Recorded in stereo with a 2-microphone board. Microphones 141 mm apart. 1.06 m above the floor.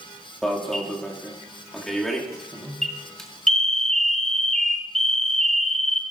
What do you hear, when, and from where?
0.4 s an alarm: 5° left (ahead or behind), 1.8 m